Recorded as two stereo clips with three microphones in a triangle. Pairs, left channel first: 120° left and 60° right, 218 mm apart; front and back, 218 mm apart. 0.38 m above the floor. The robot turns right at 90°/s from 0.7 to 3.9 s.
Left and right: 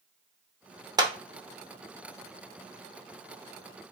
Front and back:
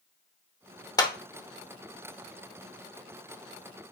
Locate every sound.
1.0 s a clap: 35° right, 0.6 m; by 1.1 s 25° right, 0.6 m